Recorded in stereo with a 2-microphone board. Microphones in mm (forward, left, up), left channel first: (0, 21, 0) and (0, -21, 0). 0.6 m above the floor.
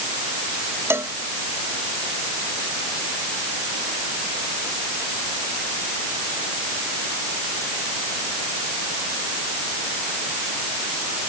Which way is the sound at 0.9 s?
70° right (ahead or behind).